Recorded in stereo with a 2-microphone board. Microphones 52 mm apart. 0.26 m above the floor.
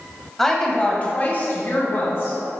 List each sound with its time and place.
0.4 s a woman speaking: 5° left (ahead or behind), 1.2 m; by 2.4 s 55° left (ahead or behind), 2.5 m